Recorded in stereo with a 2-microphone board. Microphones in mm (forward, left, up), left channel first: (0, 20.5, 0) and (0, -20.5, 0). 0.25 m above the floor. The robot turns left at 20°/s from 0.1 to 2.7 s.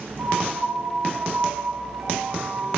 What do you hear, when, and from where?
0.2 s a piano: 90° right, 5 m; by 2.8 s 140° right, 5 m